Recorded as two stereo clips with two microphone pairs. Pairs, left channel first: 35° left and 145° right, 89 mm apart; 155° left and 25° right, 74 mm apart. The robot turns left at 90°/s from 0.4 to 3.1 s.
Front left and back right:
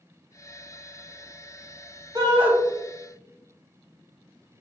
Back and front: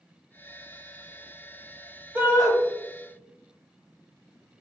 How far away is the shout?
About 1.3 m.